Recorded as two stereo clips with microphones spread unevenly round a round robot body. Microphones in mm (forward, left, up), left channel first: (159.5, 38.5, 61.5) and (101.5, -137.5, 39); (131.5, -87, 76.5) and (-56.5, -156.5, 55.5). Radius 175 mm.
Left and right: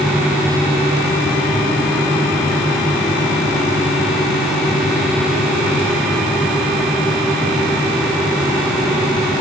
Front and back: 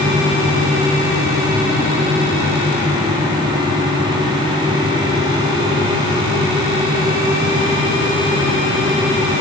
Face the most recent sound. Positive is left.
No sound to turn to.